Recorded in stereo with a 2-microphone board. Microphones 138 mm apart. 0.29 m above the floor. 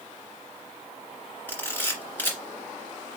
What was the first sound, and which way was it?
A camera shutter, 15° left (ahead or behind).